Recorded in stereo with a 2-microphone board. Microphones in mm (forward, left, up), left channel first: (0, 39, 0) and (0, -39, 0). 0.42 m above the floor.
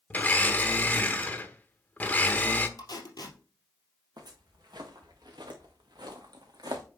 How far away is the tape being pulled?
About 2.5 m.